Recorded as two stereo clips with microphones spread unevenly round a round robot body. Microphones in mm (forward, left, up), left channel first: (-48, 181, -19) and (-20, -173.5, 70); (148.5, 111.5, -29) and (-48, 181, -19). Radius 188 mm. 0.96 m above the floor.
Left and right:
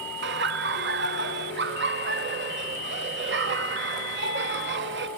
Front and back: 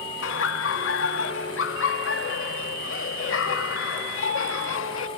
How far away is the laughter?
About 1.7 m.